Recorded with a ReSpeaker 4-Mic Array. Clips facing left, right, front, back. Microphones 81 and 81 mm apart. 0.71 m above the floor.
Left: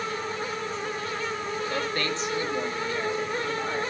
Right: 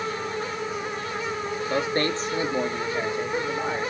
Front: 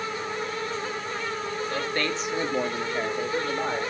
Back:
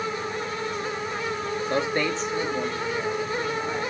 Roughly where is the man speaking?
Behind right.